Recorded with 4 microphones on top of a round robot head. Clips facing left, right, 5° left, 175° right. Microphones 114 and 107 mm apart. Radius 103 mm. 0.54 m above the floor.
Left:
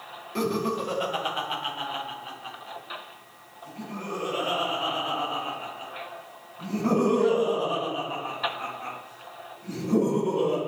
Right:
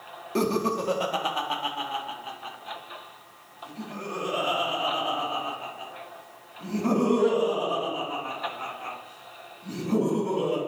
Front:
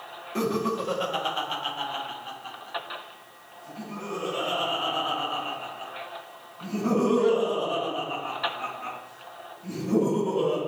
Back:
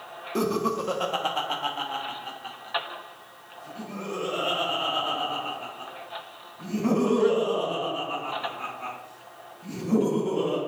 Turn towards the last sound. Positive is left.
turn(degrees=-160)